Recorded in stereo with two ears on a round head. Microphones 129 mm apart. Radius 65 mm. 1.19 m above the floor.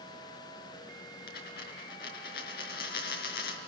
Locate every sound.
1.3 s a dropped coin: 65° left (ahead or behind), 4 m